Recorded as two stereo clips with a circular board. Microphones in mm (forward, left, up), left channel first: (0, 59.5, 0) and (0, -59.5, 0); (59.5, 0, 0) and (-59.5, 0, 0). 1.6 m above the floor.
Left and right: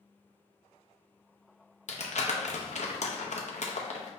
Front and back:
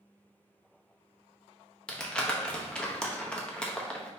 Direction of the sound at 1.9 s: 80° left.